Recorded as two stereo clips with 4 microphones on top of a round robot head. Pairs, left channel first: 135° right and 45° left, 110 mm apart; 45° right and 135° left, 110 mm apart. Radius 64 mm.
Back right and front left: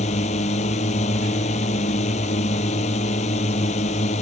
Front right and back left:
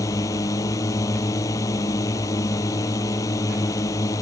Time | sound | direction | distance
0.0 | a drone | 110° right | ?